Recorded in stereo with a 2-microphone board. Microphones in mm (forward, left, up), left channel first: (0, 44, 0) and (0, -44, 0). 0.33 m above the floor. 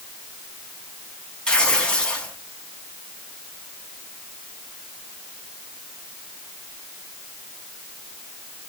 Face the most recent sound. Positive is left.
turn(degrees=10)  # may be behind; listen again after turning